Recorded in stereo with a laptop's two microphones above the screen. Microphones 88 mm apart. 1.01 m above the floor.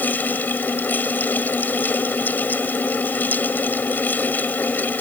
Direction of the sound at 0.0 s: 20° left (ahead or behind).